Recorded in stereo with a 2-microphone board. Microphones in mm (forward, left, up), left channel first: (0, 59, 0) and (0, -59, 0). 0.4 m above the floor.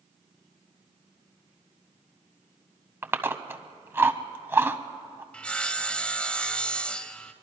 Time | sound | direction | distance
3.0 | chewing | 20° right (ahead or behind) | 0.7 m
5.3 | sawing | 10° left (ahead or behind) | 0.8 m